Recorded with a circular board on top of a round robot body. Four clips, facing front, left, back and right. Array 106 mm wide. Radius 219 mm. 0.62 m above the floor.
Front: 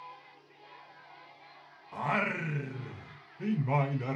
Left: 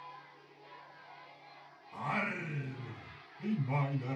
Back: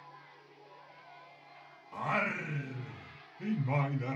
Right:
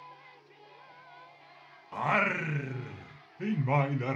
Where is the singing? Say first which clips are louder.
Right 8 dB, front 2 dB; 75° right, 0.6 m.